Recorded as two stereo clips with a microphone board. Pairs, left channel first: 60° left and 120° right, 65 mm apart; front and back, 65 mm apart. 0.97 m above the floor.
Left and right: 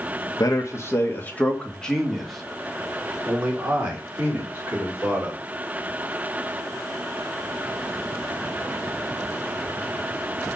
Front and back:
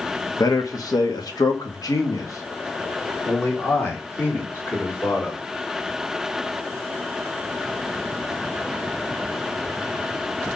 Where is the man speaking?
30° left, 1.4 m; by 5.4 s 60° right, 4 m.